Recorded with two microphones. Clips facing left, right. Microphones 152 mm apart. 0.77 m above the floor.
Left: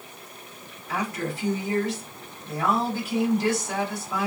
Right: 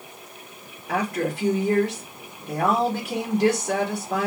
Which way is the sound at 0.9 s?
65° right (ahead or behind).